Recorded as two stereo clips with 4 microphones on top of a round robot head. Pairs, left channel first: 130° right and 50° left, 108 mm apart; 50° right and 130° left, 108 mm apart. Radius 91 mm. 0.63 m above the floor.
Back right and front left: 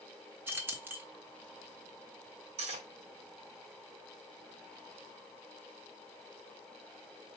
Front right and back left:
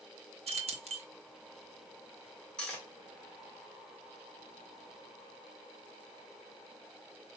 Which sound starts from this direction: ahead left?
Cutlery clinking, at 2.6 s.